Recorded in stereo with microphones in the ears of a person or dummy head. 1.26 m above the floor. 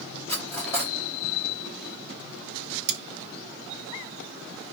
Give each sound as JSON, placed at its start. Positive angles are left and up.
{"t": 0.3, "sound": "cutlery clinking", "side_deg": 15, "distance_m": 1.8}
{"t": 2.9, "sound": "cutlery clinking", "side_deg": -50, "distance_m": 0.7}